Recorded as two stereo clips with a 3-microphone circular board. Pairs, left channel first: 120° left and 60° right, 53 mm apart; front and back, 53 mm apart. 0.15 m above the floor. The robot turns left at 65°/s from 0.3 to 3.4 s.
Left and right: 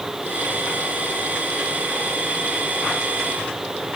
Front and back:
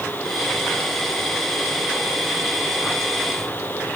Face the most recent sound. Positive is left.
No sound to turn to.